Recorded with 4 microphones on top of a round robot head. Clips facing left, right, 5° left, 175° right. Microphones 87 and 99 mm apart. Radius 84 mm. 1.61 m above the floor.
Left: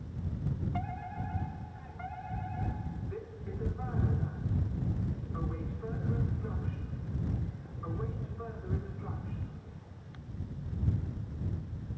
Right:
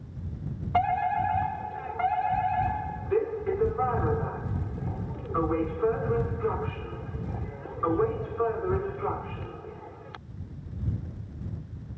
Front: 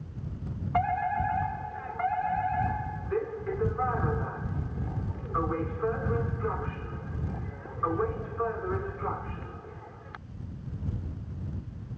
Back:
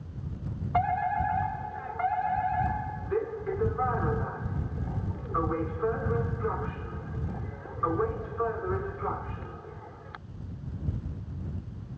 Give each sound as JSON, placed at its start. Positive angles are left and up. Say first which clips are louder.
{"t": 0.7, "sound": "a fire alarm", "louder": "right 15 dB, back 1 dB", "azimuth_deg": -90}